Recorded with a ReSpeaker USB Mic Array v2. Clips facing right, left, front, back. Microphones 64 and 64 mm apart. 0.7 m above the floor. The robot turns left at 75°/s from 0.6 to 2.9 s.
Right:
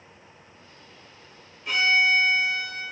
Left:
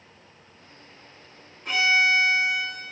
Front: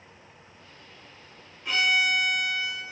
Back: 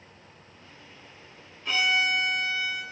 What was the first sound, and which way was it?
A violin, 80° left.